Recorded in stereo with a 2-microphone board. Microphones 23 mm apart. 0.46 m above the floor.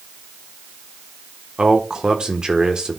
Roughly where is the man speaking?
Right.